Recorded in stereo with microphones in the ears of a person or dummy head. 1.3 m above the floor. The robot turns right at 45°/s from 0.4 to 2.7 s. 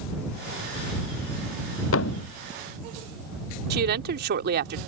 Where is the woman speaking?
60° right (ahead or behind).